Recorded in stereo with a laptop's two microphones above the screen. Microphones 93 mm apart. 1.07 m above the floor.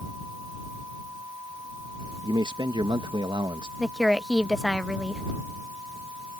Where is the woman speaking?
Centre (ahead or behind).